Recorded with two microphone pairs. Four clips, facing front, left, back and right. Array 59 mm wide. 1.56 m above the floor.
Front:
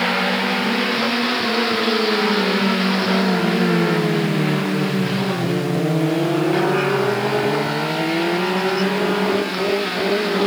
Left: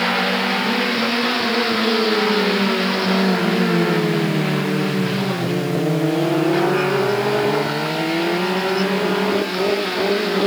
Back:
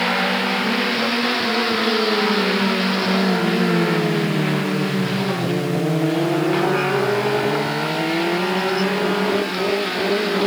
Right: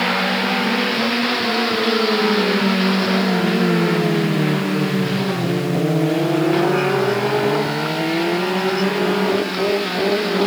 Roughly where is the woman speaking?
I don't hear a woman speaking.